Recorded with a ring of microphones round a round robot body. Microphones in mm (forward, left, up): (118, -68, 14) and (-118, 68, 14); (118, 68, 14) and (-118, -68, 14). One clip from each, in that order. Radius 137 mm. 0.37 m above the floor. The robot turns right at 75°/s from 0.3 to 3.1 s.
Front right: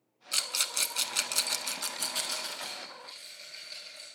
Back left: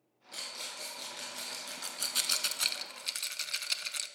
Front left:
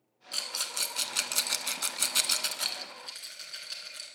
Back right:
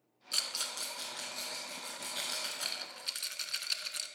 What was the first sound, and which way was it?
A rattle, 70° right.